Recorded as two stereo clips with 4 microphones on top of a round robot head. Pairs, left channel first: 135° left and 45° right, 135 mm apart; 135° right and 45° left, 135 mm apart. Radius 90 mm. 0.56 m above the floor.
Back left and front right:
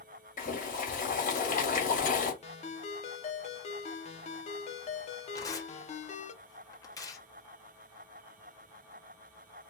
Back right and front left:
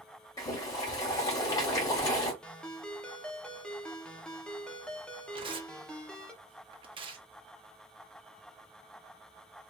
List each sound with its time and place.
0.4 s boiling: 160° left, 2.0 m
2.4 s a ringtone: 145° left, 0.9 m
5.3 s tearing paper: 80° left, 1.2 m